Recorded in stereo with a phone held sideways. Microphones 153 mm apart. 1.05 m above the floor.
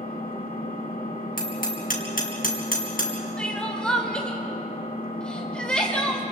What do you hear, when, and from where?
0.0 s an engine running: 70° left (ahead or behind), 7 m
1.4 s hammering: 70° left (ahead or behind), 3.5 m
3.4 s crying: 5° left (ahead or behind), 2.5 m